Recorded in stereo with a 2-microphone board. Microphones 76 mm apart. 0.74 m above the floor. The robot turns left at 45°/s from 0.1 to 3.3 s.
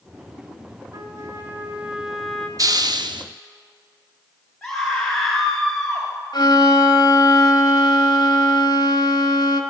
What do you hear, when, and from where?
0.9 s a trumpet: 120° right, 1.8 m; by 2.5 s 170° left, 1.8 m
2.6 s a hiss: 50° right (ahead or behind), 0.8 m; by 3.2 s 80° right, 0.8 m
4.6 s a scream: 5° left (ahead or behind), 3.5 m
6.3 s a violin: 60° left (ahead or behind), 1.7 m